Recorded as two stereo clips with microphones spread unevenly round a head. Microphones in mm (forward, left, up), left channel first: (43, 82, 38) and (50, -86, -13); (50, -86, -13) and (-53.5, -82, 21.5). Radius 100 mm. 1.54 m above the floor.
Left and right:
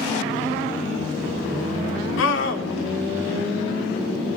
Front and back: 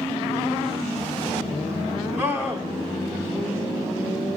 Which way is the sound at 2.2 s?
100° left.